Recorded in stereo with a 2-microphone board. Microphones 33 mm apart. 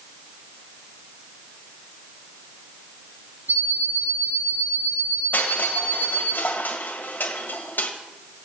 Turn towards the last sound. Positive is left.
turn(degrees=80)